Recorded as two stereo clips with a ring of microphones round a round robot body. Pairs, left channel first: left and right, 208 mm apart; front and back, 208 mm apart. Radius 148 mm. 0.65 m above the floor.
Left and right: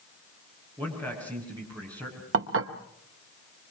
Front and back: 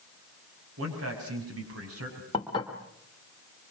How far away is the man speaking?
About 6 m.